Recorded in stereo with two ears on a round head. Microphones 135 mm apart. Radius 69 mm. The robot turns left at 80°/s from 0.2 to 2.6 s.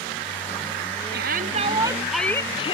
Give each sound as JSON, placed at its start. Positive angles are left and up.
{"t": 1.1, "sound": "a shout", "azimuth_deg": -95}